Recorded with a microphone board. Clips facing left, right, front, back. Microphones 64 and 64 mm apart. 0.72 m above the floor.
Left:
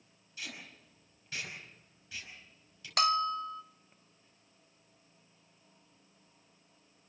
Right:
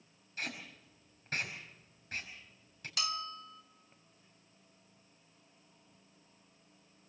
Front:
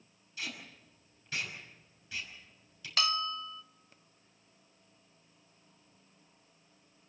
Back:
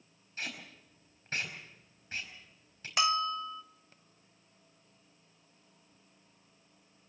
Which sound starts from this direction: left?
A bell, at 3.0 s.